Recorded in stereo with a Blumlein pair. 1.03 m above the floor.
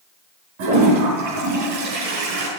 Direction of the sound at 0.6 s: 45° right.